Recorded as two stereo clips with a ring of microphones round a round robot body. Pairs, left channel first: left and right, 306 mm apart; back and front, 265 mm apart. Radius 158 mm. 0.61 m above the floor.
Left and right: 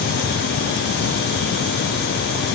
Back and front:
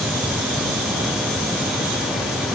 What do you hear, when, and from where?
Only background noise.